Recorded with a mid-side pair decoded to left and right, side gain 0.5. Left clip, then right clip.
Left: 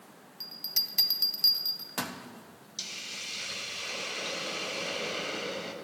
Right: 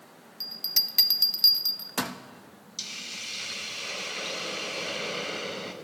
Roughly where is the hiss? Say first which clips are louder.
Right 2 dB; ahead.